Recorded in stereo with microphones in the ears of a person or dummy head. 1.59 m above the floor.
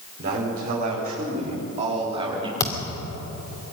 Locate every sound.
0.2 s a man speaking: 50° right (ahead or behind), 5.5 m; by 2.5 s 25° right (ahead or behind), 3.5 m
2.6 s a thud: 25° left (ahead or behind), 2.5 m